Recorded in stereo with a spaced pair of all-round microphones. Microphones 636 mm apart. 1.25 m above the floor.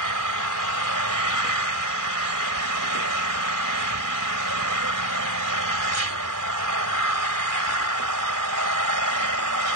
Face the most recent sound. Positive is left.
turn(degrees=-30)  # may be behind; listen again after turning